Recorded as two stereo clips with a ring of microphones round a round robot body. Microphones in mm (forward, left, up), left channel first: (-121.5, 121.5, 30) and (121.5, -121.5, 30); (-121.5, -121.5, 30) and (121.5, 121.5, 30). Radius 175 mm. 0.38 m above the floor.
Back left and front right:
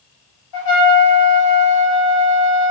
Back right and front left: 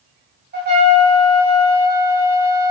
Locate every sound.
0.5 s a trumpet: 110° left, 1.7 m